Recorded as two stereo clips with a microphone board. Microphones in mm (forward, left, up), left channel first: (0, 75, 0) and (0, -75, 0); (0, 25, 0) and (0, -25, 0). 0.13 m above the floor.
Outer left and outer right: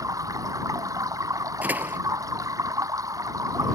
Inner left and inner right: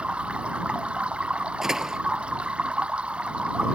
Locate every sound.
0.0 s running water: 25° right (ahead or behind)
1.6 s a door slam: 10° right (ahead or behind)